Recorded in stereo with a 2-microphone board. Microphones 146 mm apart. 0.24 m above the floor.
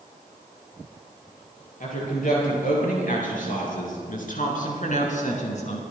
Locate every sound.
1.8 s a woman speaking: 70° left (ahead or behind), 6.5 m; by 5.8 s 50° left (ahead or behind), 3 m